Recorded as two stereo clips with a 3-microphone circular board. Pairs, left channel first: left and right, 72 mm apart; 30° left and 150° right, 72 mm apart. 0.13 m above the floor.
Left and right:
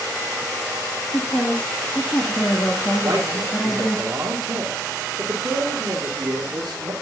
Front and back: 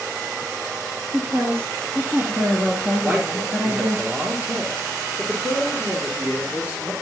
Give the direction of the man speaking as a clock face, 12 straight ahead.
3 o'clock.